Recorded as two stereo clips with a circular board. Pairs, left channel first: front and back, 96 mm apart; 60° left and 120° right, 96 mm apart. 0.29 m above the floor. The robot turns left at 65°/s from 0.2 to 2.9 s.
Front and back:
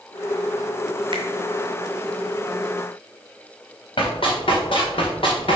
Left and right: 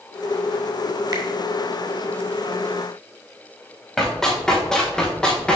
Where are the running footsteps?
25° right, 3.5 m; by 5.5 s 20° right, 3 m.